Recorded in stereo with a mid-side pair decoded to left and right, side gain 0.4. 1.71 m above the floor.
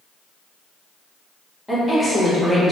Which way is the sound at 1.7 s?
10° left.